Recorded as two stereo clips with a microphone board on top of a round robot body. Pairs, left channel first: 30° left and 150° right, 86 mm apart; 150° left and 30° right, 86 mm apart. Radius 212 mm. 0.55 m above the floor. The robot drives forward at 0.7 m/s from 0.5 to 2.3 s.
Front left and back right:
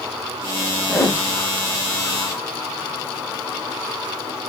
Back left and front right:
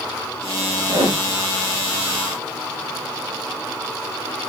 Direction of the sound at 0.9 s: 45° right.